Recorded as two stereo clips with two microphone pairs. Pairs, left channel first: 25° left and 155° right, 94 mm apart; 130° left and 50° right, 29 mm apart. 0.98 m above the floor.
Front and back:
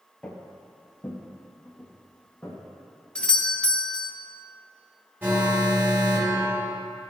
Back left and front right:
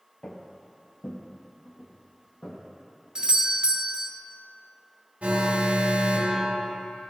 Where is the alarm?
85° right, 0.9 m.